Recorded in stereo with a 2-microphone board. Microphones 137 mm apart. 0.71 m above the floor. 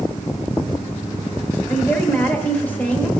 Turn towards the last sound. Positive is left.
turn(degrees=10)  # may be behind; listen again after turning